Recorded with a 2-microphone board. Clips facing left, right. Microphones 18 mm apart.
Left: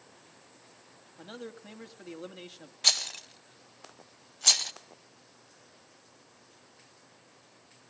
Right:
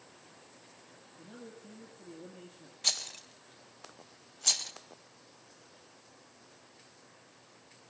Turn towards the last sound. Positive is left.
turn(degrees=30)  # may be behind; listen again after turning